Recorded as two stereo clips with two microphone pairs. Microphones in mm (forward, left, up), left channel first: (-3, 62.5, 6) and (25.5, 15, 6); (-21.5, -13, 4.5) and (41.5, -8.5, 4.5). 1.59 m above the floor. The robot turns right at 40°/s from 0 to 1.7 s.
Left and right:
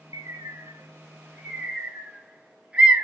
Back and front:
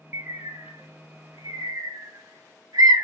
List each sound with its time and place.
0.1 s a bird: 50° right, 0.5 m; by 3.0 s 15° left, 0.5 m